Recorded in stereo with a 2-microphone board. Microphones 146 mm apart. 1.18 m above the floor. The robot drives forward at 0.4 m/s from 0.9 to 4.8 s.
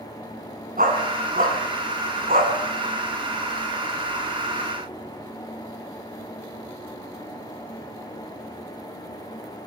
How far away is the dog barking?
About 3 m.